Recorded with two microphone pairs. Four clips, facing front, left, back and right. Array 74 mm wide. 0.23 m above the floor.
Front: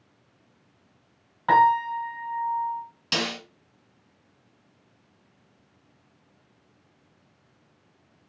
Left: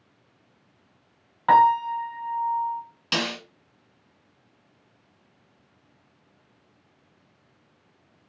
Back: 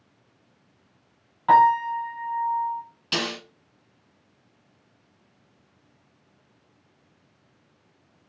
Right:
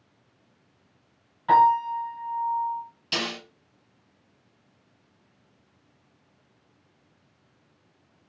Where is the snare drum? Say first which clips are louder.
Left 3 dB, even; 90° left, 2.5 m.